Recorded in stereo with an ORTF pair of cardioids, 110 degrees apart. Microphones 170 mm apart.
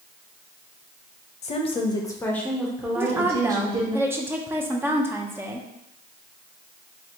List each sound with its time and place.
1.4 s a woman speaking: 45° left, 0.8 m; by 4.0 s 25° right, 1.3 m
3.0 s a woman speaking: 15° right, 0.7 m